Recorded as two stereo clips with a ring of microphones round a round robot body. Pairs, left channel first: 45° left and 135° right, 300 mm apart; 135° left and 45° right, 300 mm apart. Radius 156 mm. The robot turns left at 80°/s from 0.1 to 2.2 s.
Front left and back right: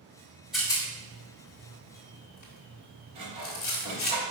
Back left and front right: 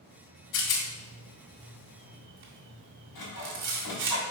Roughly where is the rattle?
Behind left.